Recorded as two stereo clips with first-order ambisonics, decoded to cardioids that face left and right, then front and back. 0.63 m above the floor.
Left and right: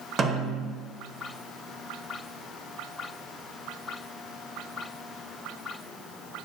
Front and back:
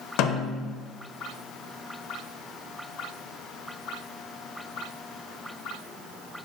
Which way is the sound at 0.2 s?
25° right.